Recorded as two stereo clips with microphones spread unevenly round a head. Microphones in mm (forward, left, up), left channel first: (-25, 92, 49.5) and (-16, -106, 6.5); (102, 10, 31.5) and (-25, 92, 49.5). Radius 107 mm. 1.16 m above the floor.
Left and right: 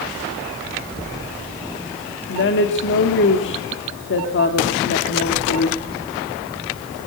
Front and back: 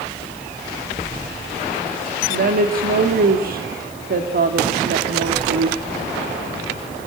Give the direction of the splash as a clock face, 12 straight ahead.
I don't hear a splash.